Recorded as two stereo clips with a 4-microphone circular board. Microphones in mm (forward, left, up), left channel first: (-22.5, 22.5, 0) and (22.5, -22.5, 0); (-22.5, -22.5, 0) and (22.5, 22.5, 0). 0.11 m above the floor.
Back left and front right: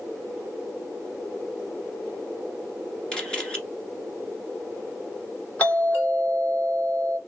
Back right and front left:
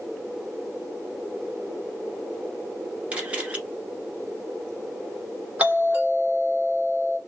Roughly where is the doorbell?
Left.